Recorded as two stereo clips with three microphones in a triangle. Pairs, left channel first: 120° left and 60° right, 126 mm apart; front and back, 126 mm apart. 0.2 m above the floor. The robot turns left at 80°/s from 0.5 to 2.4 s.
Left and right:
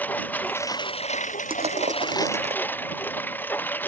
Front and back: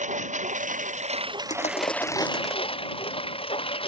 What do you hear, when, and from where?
0.0 s a lawn mower: 165° right; by 3.9 s 45° left
1.5 s crushing: 15° right; by 2.6 s 90° right